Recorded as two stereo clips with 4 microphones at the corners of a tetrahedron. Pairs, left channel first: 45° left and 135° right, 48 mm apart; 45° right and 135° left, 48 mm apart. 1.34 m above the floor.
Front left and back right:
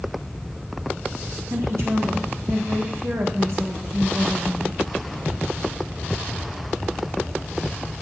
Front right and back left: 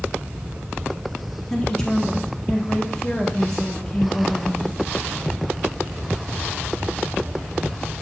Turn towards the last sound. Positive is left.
turn(degrees=-120)